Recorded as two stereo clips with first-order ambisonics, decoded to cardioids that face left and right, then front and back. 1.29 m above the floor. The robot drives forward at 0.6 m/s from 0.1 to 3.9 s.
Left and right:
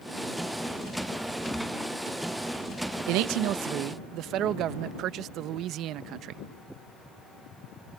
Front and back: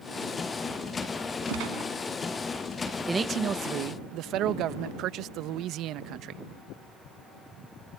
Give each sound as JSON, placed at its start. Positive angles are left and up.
{"t": 1.5, "sound": "a gunshot", "azimuth_deg": 180}
{"t": 3.1, "sound": "a man speaking", "azimuth_deg": -100}